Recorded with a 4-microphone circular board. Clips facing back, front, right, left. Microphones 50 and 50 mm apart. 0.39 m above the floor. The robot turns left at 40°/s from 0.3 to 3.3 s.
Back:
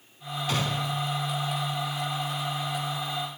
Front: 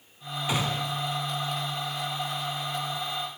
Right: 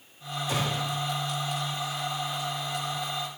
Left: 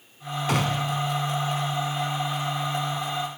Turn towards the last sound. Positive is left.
turn(degrees=-40)